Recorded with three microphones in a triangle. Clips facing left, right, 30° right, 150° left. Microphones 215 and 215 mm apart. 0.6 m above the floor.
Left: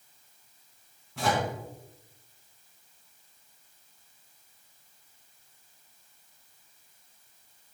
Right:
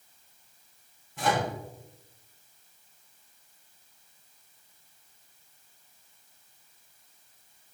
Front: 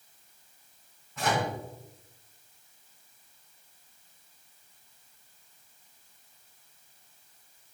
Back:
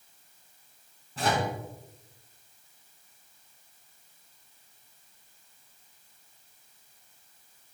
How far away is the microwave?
About 4 m.